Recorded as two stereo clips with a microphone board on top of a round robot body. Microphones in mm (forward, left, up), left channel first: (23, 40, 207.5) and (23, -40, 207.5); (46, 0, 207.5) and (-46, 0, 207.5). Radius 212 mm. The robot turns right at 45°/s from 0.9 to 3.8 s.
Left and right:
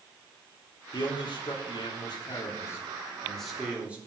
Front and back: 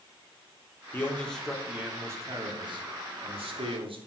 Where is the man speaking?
65° left, 3.5 m; by 4.0 s 165° right, 3.5 m.